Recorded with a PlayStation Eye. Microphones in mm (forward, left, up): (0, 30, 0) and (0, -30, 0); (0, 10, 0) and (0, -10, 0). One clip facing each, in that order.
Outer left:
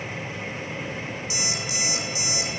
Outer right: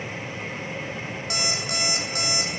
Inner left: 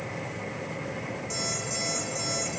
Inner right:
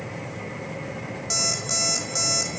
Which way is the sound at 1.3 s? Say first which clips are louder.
Outer right 5 dB, inner right 8 dB; 55° right (ahead or behind).